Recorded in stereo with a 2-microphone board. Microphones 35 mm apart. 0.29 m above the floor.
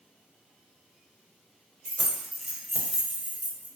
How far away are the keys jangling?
About 0.6 m.